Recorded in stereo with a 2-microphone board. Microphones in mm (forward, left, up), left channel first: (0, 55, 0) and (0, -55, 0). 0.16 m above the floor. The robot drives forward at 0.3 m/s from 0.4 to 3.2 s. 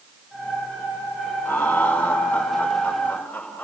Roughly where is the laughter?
Centre.